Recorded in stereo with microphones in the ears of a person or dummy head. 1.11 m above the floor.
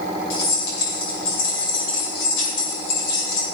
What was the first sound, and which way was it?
Keys jangling, 80° left.